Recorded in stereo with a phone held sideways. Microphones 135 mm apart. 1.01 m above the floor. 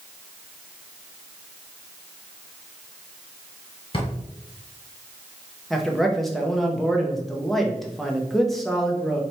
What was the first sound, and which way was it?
A drawer, 45° left (ahead or behind).